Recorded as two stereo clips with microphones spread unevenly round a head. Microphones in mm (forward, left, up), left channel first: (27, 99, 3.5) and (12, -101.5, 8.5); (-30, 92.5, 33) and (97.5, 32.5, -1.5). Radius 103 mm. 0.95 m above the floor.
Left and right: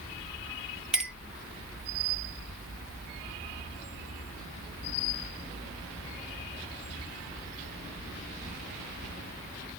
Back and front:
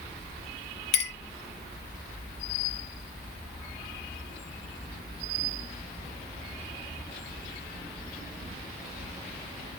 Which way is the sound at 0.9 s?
Straight behind.